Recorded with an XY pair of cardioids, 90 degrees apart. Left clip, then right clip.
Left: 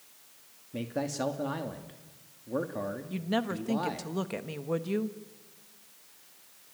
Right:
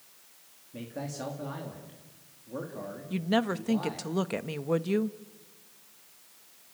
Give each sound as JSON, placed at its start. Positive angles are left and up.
{"t": 0.7, "sound": "a man speaking", "azimuth_deg": 50, "distance_m": 2.5}
{"t": 3.1, "sound": "a woman speaking", "azimuth_deg": -30, "distance_m": 1.2}